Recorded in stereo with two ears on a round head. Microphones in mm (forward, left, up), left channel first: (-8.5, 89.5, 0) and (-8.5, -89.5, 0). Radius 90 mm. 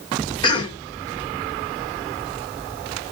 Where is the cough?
25° left (ahead or behind), 0.8 m.